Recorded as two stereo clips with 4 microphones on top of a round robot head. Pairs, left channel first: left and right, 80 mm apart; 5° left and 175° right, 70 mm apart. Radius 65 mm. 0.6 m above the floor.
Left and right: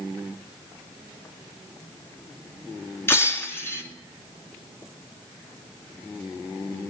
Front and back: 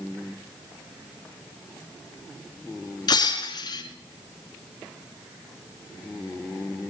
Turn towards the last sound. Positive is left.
turn(degrees=30)